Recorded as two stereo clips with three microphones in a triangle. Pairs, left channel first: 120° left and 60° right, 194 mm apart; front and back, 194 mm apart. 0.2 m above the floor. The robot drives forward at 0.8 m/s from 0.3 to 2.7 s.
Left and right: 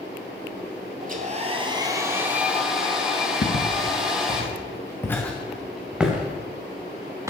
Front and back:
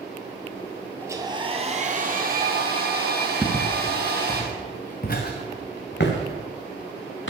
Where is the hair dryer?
105° right, 1.1 m; by 4.4 s 145° right, 1.9 m.